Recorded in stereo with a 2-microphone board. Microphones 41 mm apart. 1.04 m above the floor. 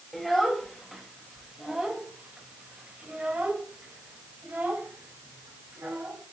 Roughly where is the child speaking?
Centre.